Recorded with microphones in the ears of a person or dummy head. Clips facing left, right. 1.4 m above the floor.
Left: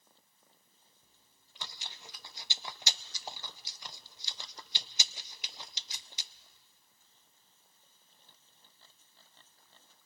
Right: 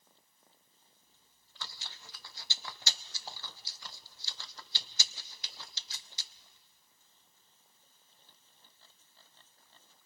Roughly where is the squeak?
No squeak in this recording.